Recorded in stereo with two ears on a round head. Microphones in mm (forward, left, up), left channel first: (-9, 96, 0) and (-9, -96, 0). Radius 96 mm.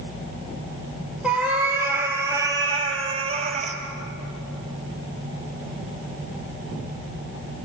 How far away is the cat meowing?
About 3.5 m.